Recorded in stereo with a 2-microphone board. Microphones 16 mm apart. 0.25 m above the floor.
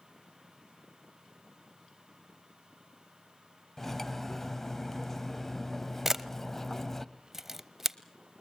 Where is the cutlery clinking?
20° left (ahead or behind), 0.8 m.